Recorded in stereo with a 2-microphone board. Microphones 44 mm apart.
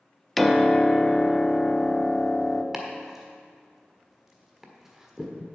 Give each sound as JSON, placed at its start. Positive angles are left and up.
{"t": 0.4, "sound": "a piano", "side_deg": 0, "distance_m": 0.5}
{"t": 2.7, "sound": "chopping", "side_deg": -10, "distance_m": 1.4}